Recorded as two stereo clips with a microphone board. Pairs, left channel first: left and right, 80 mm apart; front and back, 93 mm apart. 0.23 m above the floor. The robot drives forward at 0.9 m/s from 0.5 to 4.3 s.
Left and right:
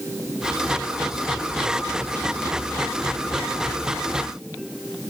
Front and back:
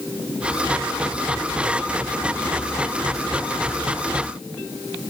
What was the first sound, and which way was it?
Only background noise.